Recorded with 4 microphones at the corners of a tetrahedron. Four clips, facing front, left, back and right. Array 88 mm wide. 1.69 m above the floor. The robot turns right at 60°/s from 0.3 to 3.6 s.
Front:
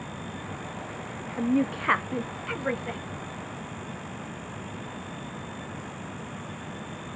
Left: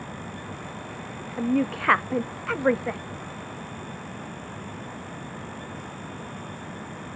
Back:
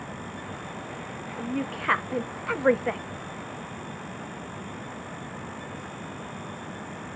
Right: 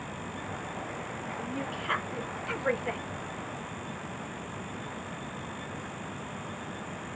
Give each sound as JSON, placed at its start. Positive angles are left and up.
{"t": 1.4, "sound": "a woman speaking", "azimuth_deg": 60, "distance_m": 0.6}